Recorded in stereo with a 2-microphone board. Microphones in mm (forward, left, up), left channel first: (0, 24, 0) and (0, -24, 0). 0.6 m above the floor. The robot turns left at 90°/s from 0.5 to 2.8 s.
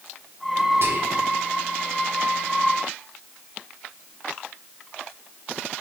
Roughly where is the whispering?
Right.